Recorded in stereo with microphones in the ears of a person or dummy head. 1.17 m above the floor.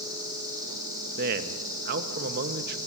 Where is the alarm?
I don't hear an alarm.